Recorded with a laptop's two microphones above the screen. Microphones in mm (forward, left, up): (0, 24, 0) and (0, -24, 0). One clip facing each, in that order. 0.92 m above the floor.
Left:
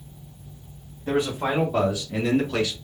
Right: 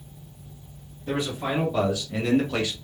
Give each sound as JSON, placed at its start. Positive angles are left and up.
{"t": 1.1, "sound": "a man speaking", "side_deg": 45, "distance_m": 1.5}